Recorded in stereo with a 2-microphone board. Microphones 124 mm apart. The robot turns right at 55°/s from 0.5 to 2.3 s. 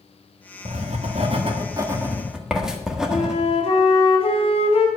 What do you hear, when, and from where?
0.7 s writing: 60° right (ahead or behind), 1.3 m; by 3.4 s 5° right (ahead or behind), 1.3 m
3.1 s a flute: 50° left (ahead or behind), 2 m